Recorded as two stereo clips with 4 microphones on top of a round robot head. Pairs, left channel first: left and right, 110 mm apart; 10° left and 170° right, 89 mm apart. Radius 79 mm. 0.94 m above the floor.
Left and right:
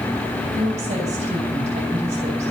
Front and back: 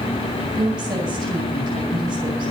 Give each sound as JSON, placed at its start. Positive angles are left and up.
{"t": 0.5, "sound": "a woman speaking", "azimuth_deg": -125, "distance_m": 7.5}